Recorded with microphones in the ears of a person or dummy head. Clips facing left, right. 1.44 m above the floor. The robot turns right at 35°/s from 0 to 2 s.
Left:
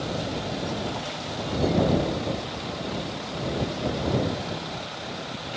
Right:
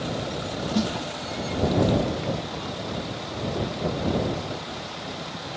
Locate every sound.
0.7 s a snare drum: 75° right (ahead or behind); by 0.9 s 70° right (ahead or behind)